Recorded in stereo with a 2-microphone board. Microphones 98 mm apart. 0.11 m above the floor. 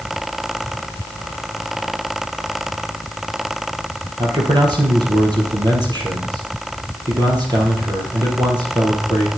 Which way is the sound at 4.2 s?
45° right (ahead or behind).